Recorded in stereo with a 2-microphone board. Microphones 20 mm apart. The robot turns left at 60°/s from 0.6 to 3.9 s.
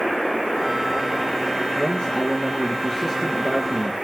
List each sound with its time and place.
1.8 s a man speaking: 85° left, 3.5 m; by 3.9 s 45° right, 3.5 m